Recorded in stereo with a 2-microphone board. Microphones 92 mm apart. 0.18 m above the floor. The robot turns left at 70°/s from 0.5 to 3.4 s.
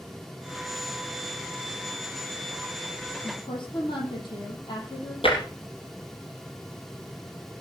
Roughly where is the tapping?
Left.